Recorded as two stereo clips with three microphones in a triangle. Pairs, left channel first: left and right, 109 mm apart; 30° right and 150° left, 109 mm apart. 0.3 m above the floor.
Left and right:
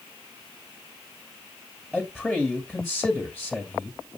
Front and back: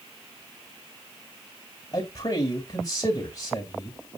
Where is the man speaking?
5° left, 2 m.